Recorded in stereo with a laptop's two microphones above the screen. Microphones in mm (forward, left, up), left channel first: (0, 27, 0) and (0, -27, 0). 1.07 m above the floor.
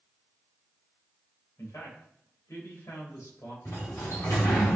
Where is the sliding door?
70° left (ahead or behind), 4 m.